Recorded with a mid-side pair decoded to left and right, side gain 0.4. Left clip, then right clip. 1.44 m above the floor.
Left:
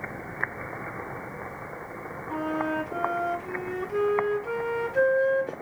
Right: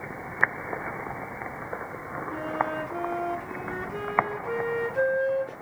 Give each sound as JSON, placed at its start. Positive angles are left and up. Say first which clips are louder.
{"t": 2.3, "sound": "a flute", "louder": "left 1 dB", "azimuth_deg": 60, "distance_m": 1.8}